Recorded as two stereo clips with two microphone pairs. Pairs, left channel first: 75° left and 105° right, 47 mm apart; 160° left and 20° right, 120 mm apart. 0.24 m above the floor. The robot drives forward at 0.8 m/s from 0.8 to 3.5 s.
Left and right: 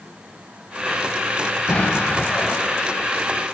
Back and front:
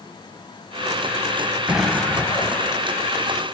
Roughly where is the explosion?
Ahead left.